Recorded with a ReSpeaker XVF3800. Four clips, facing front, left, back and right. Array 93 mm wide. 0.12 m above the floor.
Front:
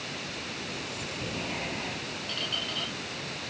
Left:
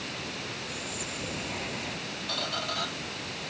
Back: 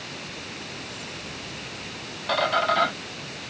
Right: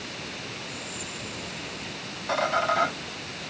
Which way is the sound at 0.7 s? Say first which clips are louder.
Even, even; 20° left.